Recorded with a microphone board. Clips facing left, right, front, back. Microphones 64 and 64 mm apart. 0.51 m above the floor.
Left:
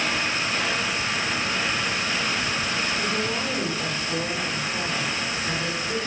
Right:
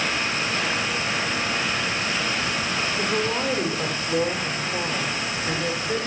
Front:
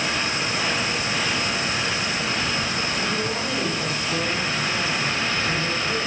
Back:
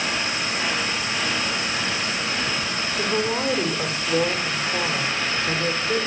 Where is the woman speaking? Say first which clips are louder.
Right 2 dB, back 2 dB; 140° right, 1.8 m.